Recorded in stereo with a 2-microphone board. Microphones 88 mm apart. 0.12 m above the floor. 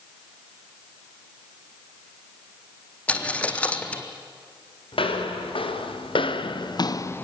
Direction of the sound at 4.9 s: 85° left.